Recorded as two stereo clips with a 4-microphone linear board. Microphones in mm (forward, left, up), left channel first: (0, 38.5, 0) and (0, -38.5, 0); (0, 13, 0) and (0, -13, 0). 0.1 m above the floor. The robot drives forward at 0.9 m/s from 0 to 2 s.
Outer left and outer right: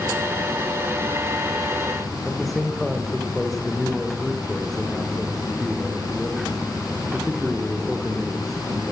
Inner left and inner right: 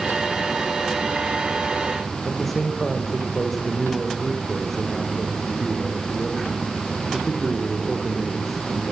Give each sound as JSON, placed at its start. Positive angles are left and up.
{"t": 2.2, "sound": "a man speaking", "side_deg": 5, "distance_m": 6.0}